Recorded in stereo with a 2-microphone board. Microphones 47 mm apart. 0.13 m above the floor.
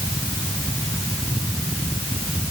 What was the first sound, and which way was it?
Only background noise.